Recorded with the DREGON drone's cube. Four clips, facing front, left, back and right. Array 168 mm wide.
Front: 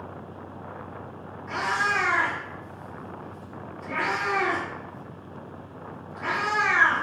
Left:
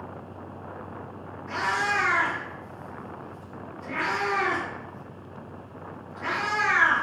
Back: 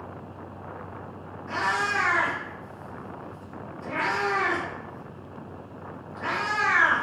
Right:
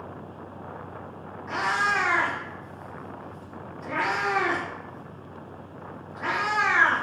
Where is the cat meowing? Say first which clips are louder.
Right 1 dB, even; 90° right, 1.2 m.